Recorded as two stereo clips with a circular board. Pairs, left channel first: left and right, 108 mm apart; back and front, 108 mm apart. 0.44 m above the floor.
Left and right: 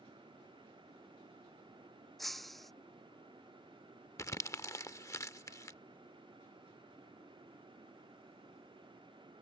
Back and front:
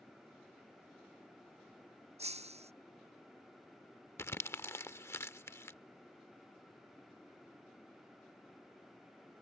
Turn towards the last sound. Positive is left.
turn(degrees=130)